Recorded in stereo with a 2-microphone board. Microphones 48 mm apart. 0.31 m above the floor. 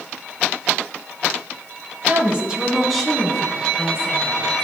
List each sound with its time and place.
2.1 s a woman speaking: 30° right (ahead or behind), 1.8 m; by 4.4 s 25° left (ahead or behind), 3.5 m